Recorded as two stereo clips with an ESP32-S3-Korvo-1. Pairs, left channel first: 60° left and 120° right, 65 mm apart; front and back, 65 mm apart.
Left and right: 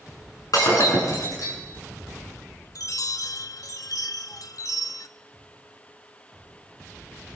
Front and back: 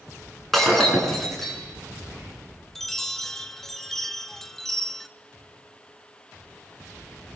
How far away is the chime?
About 1.2 m.